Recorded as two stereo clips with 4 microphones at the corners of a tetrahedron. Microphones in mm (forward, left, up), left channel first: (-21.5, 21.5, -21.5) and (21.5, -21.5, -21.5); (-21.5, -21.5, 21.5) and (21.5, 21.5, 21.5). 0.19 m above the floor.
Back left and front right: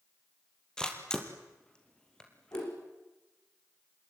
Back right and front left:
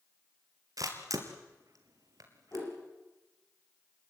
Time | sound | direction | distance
0.8 | a camera shutter | 60° left | 3 m
2.5 | a whoosh | 175° left | 9 m